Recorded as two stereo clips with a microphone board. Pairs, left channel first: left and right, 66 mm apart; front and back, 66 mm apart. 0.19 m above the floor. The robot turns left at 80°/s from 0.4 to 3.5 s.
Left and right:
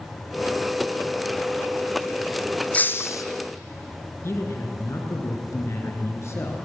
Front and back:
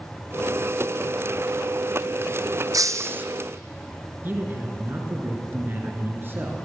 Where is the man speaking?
130° left, 3.5 m.